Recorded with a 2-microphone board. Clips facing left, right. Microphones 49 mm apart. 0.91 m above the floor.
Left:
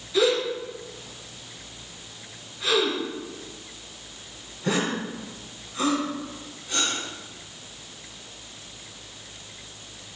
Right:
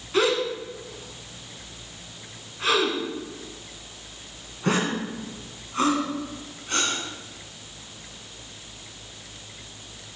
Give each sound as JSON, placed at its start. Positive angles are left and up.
{"t": 0.1, "sound": "a gasp", "side_deg": -50, "distance_m": 2.5}